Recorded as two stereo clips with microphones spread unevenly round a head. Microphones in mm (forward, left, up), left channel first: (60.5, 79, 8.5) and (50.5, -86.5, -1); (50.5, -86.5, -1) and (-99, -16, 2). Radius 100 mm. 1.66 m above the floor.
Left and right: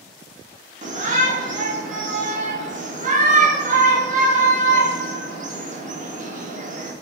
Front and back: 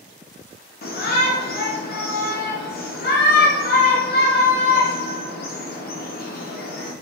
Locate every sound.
0.8 s a shout: 50° right, 0.9 m